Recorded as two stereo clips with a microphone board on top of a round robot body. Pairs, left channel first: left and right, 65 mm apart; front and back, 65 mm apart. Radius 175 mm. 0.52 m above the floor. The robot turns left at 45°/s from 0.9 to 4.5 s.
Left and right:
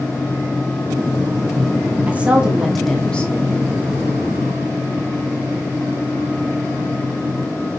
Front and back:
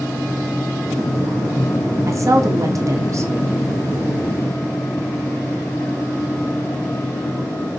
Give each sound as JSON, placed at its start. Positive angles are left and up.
{"t": 2.1, "sound": "a woman speaking", "azimuth_deg": -150, "distance_m": 2.0}